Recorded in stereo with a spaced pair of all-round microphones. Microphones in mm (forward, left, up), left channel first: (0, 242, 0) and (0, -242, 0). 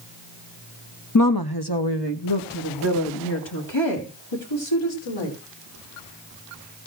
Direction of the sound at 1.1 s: 35° left (ahead or behind).